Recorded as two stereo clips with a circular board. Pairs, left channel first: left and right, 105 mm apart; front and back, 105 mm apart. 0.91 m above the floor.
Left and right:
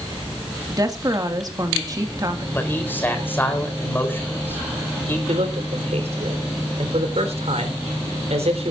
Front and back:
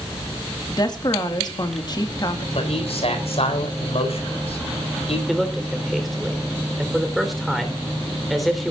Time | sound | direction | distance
0.7 | a woman speaking | 40° right | 1.8 m
2.5 | a man speaking | 20° left | 4 m
5.3 | a man speaking | 90° right | 3.5 m